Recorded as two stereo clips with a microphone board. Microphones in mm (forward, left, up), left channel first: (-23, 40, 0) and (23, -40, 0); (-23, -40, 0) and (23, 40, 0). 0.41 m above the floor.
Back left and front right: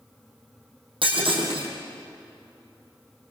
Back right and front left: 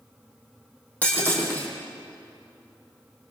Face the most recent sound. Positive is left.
turn(degrees=-50)